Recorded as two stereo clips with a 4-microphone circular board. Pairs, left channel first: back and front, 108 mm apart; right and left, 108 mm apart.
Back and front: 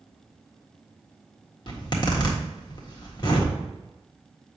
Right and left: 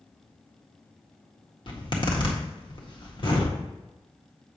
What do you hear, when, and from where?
1.7 s a zipper: 130° right, 1.6 m